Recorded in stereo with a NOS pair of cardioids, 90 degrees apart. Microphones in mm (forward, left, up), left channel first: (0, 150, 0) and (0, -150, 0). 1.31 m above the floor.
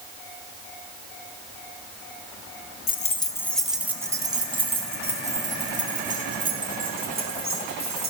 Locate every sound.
2.9 s keys jangling: 30° left, 0.5 m; by 8.1 s 30° right, 3 m